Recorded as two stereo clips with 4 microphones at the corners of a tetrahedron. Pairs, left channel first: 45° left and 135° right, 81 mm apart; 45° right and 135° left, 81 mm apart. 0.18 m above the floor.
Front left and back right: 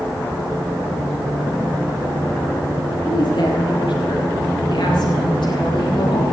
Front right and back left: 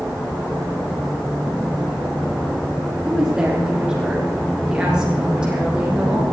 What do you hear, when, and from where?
3.0 s a woman speaking: 55° left, 7 m